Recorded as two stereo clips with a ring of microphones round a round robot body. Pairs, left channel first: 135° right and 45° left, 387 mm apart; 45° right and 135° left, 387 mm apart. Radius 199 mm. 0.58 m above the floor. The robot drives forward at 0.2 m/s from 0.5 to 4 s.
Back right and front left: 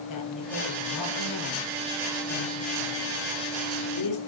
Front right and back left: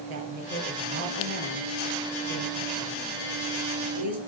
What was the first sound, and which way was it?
A woman speaking, straight behind.